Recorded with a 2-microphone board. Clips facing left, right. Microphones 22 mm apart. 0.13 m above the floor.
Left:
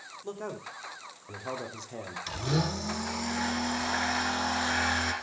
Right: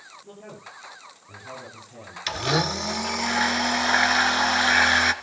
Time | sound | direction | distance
0.2 | a man speaking | 65° left (ahead or behind) | 5.5 m
2.3 | a blender | 45° right (ahead or behind) | 1.6 m